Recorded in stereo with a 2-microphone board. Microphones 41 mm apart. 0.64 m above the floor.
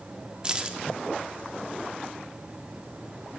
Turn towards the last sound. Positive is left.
turn(degrees=-25)  # may be behind; listen again after turning